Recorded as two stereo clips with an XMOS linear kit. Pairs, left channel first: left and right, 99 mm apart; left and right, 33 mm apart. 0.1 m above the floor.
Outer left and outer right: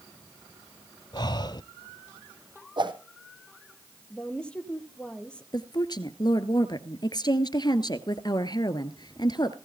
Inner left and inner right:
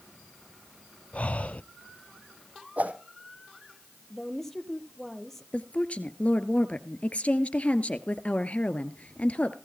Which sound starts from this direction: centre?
A woman speaking, at 4.1 s.